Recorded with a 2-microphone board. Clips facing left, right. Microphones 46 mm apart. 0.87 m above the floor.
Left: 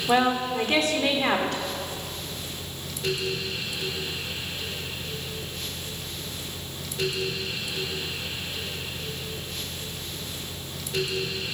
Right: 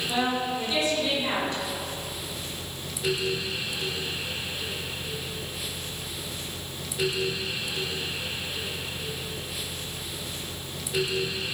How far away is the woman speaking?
About 3 m.